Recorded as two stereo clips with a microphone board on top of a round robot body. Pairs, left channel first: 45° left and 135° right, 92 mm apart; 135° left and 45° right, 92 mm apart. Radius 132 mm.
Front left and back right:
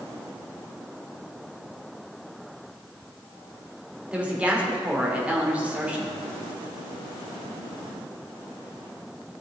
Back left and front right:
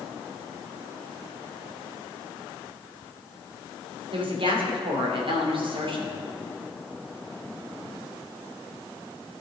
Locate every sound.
4.1 s a woman speaking: 60° right, 2.5 m